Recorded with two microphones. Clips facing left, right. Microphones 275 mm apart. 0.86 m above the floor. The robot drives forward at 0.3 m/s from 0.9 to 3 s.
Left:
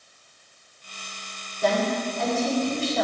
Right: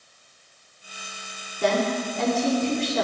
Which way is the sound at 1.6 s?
80° right.